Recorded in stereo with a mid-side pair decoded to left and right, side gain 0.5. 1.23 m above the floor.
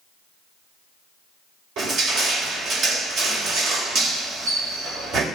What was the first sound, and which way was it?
Crushing, 70° right.